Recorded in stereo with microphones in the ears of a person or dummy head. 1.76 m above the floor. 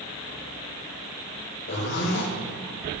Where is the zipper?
60° left (ahead or behind), 2.5 m.